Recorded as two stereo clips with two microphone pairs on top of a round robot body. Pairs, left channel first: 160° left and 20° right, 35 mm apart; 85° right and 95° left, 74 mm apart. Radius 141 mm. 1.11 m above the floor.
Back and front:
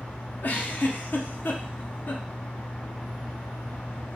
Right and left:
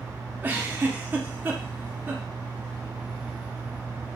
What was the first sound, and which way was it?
A giggle, 155° left.